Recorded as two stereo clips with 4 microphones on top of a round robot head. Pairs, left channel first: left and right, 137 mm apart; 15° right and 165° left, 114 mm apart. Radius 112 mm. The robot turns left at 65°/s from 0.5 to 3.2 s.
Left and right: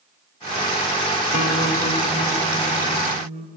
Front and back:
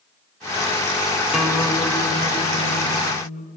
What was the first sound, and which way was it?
A guitar, 80° left.